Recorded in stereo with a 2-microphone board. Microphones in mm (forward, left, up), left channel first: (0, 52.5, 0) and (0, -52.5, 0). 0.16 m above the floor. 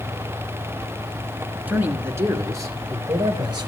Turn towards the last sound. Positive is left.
turn(degrees=-45)  # may be behind; listen again after turning